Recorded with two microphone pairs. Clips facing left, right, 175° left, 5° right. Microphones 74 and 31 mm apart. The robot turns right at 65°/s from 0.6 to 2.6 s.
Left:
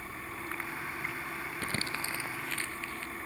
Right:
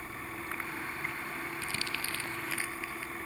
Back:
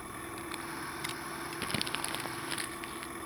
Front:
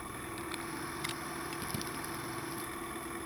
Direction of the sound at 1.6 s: 125° left.